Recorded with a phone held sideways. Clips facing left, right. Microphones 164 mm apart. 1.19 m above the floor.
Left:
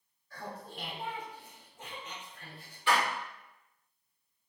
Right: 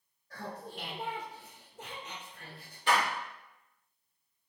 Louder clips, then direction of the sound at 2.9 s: Even; 45° right (ahead or behind).